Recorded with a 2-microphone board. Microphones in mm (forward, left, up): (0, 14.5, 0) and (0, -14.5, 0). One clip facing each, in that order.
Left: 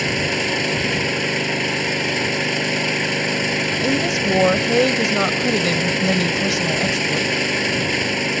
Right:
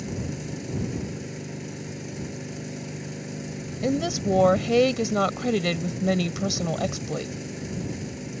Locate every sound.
0.0 s an engine running: 80° left
3.8 s a woman speaking: 5° left (ahead or behind)